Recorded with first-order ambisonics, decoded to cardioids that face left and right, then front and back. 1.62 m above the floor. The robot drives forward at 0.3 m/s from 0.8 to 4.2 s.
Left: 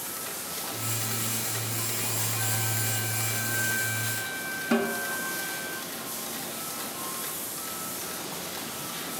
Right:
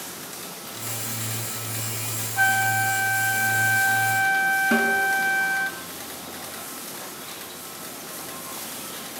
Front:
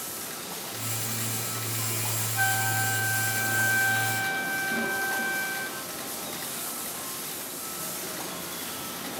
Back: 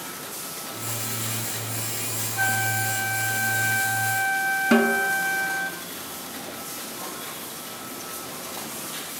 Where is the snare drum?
175° right, 2.5 m.